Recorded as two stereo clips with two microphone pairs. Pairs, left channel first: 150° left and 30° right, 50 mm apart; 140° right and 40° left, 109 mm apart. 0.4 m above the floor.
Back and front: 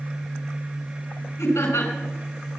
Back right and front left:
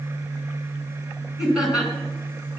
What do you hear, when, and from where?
1.4 s laughter: 125° left, 5 m